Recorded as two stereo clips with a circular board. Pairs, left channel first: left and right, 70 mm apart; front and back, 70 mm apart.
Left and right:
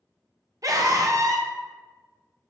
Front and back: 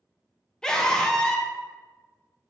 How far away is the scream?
About 0.8 m.